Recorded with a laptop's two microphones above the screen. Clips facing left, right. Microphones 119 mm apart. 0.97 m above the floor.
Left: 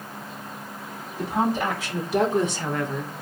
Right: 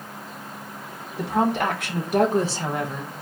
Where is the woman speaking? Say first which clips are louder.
Right 2 dB; 65° right (ahead or behind), 1.1 m; by 3.1 s 5° left (ahead or behind), 0.6 m.